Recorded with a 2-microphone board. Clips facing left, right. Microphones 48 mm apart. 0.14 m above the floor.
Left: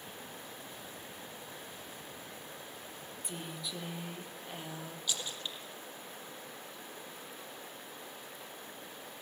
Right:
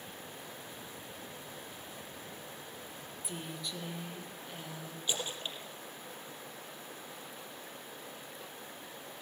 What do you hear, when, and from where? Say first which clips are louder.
3.2 s a woman speaking: right 1 dB; centre (ahead or behind), 4 m; by 5.0 s 20° left (ahead or behind), 4.5 m
5.1 s a splash: right 3 dB; 30° right (ahead or behind), 4 m